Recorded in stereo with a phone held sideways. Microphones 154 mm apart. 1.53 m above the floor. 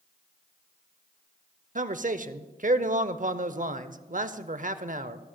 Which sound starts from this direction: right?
A man speaking, at 1.8 s.